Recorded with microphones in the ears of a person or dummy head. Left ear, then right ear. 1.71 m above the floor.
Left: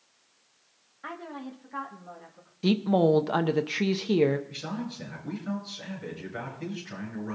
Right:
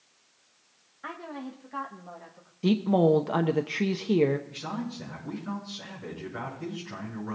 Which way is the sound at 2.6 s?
10° left (ahead or behind).